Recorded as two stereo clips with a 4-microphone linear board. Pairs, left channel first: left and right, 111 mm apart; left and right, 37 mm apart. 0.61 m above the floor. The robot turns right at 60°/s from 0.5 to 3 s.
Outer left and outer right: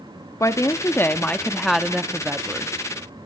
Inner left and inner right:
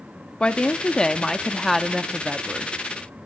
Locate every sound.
0.4 s a woman speaking: 25° left (ahead or behind), 1.0 m; by 2.7 s 25° right (ahead or behind), 1.0 m